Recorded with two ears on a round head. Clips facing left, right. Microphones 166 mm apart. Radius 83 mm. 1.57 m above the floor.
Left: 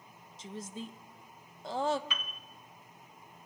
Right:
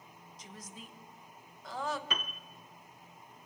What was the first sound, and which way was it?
A woman speaking, 25° left (ahead or behind).